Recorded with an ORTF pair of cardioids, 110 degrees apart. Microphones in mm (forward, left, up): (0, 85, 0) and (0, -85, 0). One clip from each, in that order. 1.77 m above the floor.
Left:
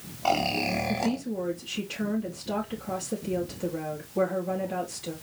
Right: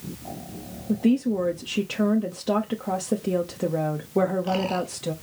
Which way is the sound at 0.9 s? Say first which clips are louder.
Right 5 dB; 70° right.